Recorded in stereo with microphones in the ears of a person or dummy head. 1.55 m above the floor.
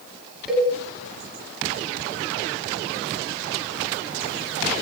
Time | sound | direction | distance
0.5 | a cowbell | centre (ahead or behind) | 6 m